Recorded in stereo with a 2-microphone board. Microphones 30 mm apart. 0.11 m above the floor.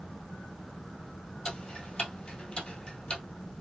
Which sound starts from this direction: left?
Ticking, at 1.4 s.